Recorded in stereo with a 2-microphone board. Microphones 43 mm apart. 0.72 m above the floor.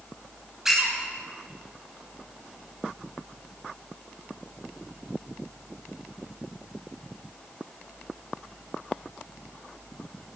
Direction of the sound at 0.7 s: 10° right (ahead or behind).